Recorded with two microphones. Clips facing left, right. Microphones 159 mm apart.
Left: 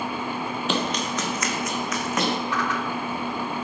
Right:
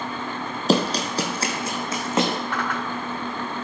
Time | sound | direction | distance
0.7 | running footsteps | 40° right (ahead or behind) | 1.6 m
2.5 | a whoosh | 55° right (ahead or behind) | 1.5 m